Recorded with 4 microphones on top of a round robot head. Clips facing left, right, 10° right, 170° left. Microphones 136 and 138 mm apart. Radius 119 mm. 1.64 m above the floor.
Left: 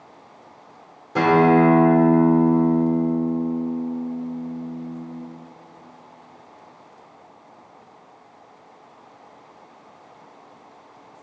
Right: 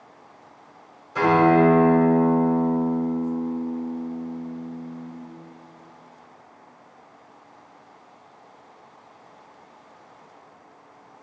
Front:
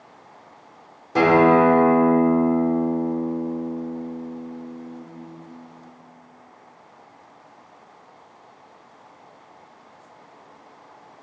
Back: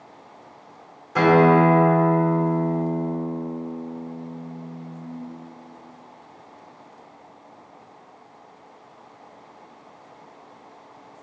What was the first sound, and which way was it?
A guitar, 50° left.